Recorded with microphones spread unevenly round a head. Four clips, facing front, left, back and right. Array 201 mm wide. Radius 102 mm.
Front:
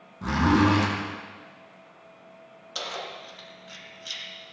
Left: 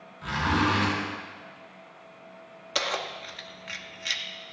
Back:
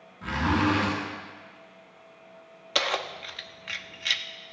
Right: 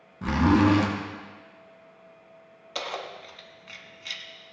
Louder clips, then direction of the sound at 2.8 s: Left 3 dB, back 6 dB; 145° left.